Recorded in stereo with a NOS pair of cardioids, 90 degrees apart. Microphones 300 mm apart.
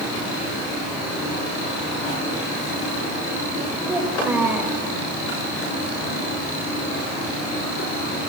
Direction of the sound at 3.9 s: 5° right.